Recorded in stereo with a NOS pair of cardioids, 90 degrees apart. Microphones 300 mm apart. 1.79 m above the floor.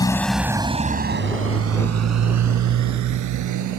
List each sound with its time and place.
0.0 s a motorcycle: 15° left; by 3.8 s 80° right